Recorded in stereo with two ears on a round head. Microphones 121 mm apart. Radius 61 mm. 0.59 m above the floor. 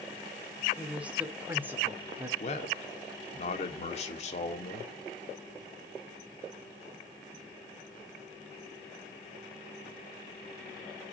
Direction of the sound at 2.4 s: 50° left (ahead or behind).